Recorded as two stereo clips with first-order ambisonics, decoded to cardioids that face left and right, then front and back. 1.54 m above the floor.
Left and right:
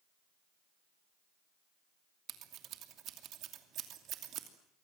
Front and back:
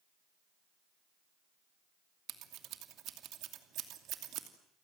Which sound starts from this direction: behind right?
Scissors, at 2.3 s.